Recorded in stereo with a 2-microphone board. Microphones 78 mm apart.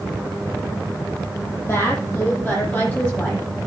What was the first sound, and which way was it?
A woman speaking, 25° left (ahead or behind).